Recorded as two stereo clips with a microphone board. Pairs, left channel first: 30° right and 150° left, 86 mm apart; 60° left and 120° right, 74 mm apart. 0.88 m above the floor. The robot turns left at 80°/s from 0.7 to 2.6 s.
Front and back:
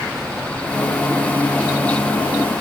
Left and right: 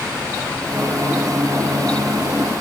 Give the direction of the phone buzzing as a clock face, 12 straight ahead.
I don't hear a phone buzzing.